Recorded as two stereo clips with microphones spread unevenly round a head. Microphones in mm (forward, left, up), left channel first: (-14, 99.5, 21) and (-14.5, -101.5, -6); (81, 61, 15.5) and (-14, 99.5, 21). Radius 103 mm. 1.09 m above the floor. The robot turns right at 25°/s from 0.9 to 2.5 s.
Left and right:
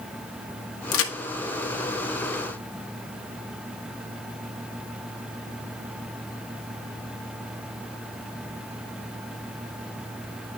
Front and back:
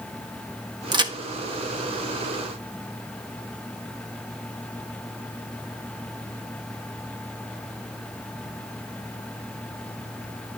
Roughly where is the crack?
Left.